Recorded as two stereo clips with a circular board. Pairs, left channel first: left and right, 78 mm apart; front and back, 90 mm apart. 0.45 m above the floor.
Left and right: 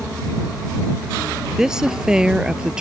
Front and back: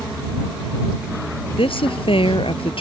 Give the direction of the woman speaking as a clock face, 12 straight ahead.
12 o'clock.